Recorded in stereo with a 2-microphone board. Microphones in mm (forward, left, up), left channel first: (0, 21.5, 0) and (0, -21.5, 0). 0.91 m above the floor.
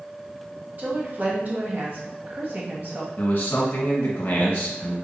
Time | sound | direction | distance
0.8 | a woman speaking | 45° right (ahead or behind) | 1.2 m
3.2 | a man speaking | 55° left (ahead or behind) | 1.4 m